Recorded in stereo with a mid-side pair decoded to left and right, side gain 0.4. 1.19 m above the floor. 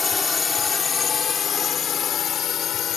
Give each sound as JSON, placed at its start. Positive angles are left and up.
{"t": 0.0, "sound": "a drone", "azimuth_deg": 40}